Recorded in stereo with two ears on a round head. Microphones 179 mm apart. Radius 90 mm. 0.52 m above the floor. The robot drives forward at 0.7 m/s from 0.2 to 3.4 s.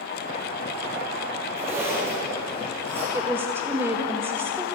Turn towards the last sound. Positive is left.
turn(degrees=-10)  # may be behind; listen again after turning